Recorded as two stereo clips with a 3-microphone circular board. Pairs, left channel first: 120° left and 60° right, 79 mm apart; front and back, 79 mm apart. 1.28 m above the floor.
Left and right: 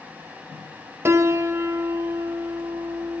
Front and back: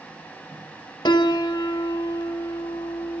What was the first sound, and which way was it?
A piano, 5° right.